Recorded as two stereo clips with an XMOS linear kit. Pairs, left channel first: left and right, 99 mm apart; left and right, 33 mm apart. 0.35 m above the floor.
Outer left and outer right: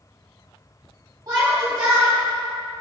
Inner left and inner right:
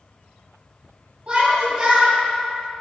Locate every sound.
1.3 s a shout: 40° right (ahead or behind), 2.5 m